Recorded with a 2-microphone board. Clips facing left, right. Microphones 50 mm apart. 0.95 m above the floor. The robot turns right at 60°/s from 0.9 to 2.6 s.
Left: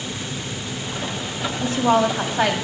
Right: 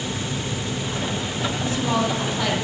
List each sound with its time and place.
1.6 s a woman speaking: 65° left, 2 m; by 2.5 s 120° left, 2 m